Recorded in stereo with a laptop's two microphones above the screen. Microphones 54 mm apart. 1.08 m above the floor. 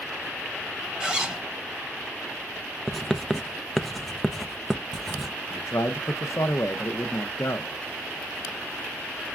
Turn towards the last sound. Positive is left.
turn(degrees=65)  # may be behind; listen again after turning